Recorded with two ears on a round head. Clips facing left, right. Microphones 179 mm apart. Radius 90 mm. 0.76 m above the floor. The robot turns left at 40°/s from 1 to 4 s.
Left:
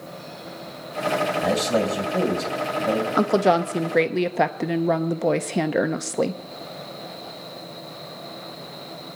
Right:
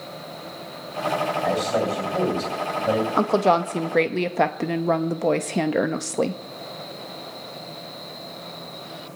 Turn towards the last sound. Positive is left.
turn(degrees=5)  # may be behind; listen again after turning